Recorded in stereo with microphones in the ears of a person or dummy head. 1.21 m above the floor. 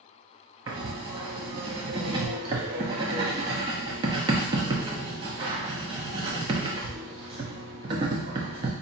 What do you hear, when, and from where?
0.7 s writing: 30° right (ahead or behind), 0.7 m